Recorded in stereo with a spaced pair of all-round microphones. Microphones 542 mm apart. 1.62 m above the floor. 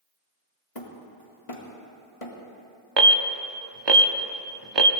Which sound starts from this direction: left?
Hammering, at 0.8 s.